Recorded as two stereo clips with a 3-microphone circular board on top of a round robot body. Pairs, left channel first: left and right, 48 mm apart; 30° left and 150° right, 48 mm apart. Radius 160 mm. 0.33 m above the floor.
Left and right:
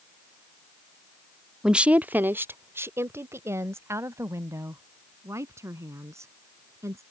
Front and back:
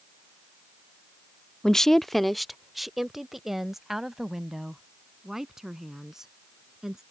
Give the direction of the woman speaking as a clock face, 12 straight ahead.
1 o'clock.